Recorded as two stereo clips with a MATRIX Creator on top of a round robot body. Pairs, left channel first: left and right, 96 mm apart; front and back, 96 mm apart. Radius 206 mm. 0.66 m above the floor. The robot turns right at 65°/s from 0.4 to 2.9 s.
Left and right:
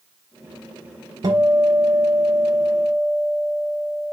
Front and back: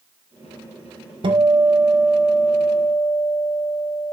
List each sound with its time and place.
1.2 s a guitar: 145° right, 0.8 m; by 4.1 s 35° right, 0.8 m